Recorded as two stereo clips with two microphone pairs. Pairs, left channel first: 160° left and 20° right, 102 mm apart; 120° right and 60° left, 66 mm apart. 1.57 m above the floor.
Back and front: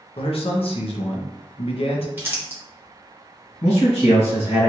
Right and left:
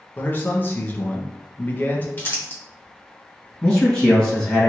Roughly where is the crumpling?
Right.